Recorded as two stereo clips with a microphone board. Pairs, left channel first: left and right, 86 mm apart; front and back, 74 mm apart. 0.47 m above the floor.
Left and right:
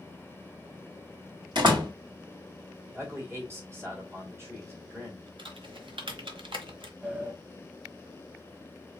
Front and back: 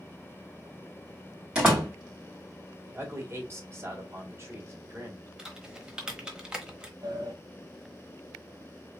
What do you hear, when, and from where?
1.6 s a door slam: 105° right, 2.5 m
2.9 s a man speaking: 135° right, 2 m
5.4 s typing on a keyboard: 100° right, 1.0 m
7.0 s a sliding door: 160° right, 1.6 m